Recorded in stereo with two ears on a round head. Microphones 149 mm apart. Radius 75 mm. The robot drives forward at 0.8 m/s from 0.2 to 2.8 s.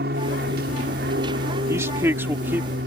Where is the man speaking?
20° right (ahead or behind); by 2.8 s 15° right (ahead or behind).